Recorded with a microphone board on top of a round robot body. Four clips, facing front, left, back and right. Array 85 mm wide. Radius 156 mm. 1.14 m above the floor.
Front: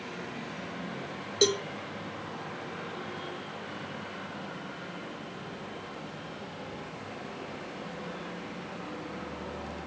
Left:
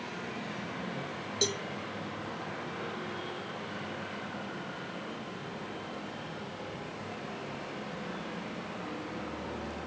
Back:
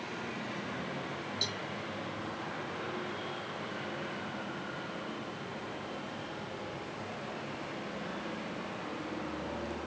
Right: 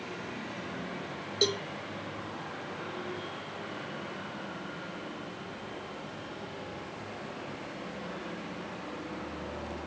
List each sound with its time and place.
1.4 s a cowbell: 15° right